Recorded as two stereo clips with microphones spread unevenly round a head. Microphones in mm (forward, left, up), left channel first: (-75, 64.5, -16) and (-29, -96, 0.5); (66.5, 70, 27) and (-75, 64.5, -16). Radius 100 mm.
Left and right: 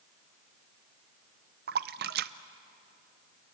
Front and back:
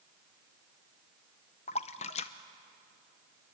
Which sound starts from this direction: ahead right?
A splash, at 1.7 s.